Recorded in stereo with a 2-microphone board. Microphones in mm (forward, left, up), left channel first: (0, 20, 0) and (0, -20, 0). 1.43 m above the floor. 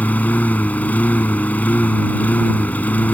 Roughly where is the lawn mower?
Left.